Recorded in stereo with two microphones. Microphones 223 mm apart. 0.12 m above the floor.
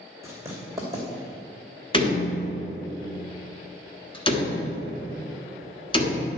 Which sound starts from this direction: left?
A door slam, at 1.9 s.